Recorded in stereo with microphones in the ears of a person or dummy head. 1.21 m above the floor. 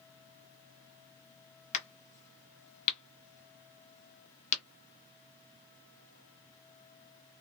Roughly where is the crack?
Left.